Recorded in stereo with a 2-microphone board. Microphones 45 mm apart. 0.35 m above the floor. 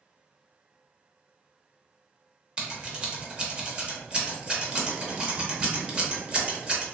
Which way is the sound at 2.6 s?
25° right (ahead or behind).